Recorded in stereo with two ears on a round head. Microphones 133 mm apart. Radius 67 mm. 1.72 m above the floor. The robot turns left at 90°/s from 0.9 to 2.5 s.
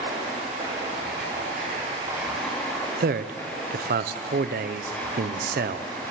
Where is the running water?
50° right, 8 m; by 6.1 s 165° left, 8 m.